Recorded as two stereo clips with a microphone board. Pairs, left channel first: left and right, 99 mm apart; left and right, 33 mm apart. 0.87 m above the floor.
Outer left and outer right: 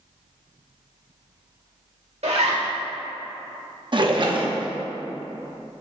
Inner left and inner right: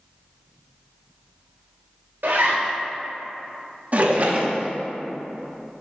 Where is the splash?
45° right (ahead or behind), 0.8 m.